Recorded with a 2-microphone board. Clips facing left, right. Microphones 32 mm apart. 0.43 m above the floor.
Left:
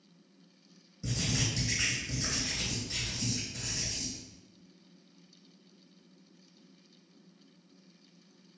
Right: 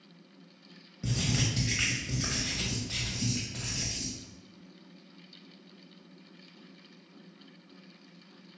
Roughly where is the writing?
Right.